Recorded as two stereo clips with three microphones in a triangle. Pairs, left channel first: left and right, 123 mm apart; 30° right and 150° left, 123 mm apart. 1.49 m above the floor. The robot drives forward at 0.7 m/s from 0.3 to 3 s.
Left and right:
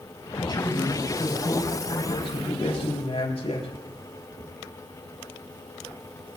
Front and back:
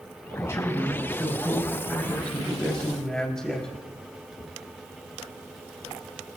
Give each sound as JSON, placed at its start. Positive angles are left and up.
{"t": 0.4, "sound": "a man speaking", "azimuth_deg": 35, "distance_m": 5.0}